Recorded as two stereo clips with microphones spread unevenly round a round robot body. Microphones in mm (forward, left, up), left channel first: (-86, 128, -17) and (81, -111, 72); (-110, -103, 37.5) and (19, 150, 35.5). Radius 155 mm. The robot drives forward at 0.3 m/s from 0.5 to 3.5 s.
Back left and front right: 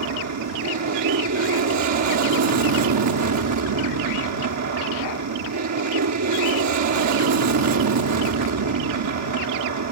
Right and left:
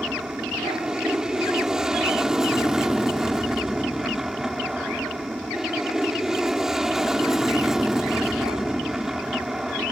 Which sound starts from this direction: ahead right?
An aircraft, at 0.0 s.